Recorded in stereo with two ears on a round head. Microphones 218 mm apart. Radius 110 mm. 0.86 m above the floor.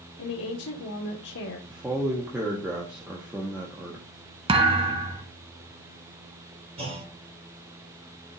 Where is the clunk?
25° right (ahead or behind), 3.5 m.